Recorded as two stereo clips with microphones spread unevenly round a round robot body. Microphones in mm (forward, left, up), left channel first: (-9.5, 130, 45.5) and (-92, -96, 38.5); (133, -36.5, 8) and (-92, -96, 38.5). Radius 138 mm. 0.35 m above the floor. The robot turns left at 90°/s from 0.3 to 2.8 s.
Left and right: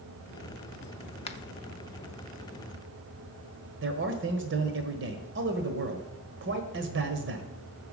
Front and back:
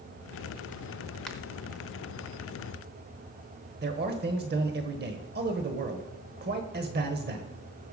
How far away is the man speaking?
About 1.5 m.